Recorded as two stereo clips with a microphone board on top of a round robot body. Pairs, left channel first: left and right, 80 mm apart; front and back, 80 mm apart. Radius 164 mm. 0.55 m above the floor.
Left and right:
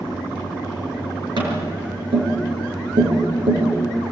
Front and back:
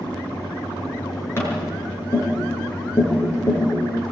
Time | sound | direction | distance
1.4 | tapping | 60° right | 6 m